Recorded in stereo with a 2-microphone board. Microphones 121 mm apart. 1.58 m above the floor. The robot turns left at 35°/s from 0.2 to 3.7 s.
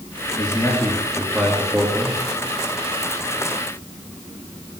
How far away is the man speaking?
About 3 m.